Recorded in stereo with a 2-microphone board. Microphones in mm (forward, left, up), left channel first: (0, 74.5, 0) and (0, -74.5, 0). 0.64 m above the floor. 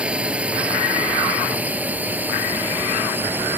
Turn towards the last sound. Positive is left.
turn(degrees=-15)  # may be behind; listen again after turning